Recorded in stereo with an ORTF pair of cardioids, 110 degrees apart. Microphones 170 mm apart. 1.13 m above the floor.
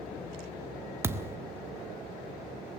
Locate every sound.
1.0 s a thud: 15° right, 1.2 m